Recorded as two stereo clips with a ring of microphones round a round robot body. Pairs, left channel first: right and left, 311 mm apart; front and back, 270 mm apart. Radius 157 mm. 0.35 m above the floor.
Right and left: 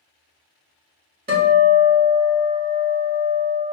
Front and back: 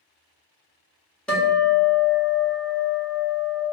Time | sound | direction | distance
1.3 | a guitar | 85° left | 1.4 m